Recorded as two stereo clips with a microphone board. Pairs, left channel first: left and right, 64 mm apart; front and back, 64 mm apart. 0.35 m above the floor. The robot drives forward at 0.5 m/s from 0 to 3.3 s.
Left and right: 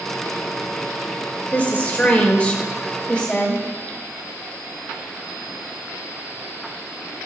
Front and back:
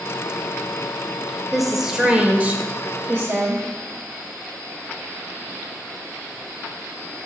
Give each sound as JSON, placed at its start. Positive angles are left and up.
{"t": 1.5, "sound": "a woman speaking", "azimuth_deg": 90, "distance_m": 1.0}